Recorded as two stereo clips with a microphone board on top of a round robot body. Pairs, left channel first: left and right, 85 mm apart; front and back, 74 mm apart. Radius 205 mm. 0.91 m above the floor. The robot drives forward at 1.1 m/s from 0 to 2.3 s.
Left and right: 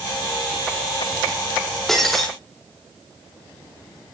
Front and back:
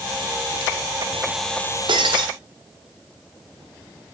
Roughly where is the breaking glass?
Behind.